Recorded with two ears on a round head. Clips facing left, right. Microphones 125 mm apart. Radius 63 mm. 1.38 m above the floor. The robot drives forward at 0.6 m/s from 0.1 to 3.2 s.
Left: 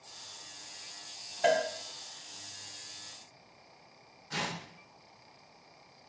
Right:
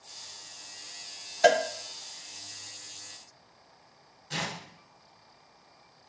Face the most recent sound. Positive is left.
turn(degrees=-35)  # may be behind; listen again after turning